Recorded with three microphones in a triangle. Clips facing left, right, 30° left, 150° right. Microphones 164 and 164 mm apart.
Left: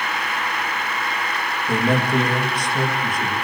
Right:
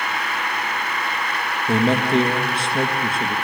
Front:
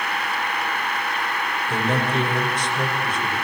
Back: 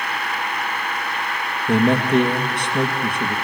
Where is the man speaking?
150° right, 4 m.